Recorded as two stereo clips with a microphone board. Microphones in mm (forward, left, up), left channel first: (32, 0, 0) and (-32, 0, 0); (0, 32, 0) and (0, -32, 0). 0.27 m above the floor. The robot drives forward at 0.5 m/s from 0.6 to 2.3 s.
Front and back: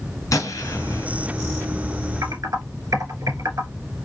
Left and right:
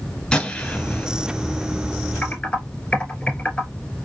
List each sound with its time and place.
0.3 s a gunshot: 15° left, 2.5 m
2.2 s typing on a keyboard: 160° left, 2 m